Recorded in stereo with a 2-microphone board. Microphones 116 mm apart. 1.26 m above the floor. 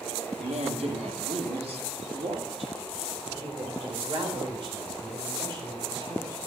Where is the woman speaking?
85° right, 1.9 m; by 6.4 s 40° right (ahead or behind), 5.5 m.